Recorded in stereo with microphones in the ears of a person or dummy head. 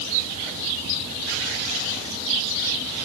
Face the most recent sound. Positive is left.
No sound to turn to.